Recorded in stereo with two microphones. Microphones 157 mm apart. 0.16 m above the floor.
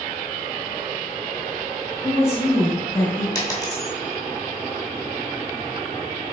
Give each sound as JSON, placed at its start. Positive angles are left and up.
{"t": 2.0, "sound": "a woman speaking", "side_deg": 20, "distance_m": 1.6}
{"t": 3.4, "sound": "a dropped coin", "side_deg": 25, "distance_m": 0.9}